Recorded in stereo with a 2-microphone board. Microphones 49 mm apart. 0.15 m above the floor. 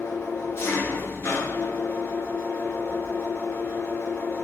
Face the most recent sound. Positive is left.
turn(degrees=60)  # may be behind; listen again after turning